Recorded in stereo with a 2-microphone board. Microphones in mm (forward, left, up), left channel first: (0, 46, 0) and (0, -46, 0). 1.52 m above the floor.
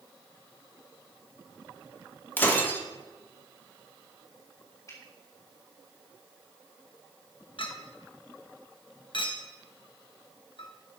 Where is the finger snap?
35° left (ahead or behind), 5 m.